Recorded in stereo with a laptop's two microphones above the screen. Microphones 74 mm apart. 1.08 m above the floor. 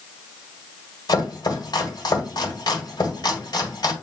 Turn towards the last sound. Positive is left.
turn(degrees=60)  # may be behind; listen again after turning